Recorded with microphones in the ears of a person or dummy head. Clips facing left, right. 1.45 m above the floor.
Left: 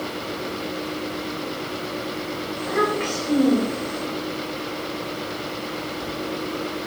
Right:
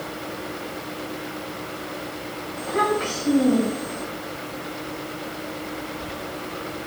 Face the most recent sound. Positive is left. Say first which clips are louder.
# even
turn(degrees=35)  # may be behind; listen again after turning